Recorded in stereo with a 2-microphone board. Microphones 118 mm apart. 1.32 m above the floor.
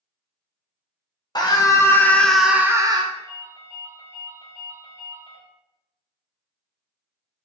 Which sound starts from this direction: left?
A scream, at 1.4 s.